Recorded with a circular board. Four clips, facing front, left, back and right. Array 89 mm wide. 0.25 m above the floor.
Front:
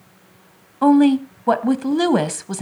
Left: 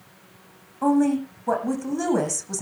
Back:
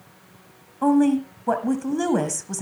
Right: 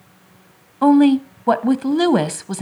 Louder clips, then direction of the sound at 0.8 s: Right 8 dB, front 5 dB; 55° right.